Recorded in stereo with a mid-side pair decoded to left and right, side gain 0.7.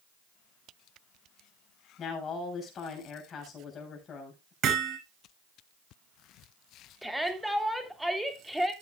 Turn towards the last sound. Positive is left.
turn(degrees=-5)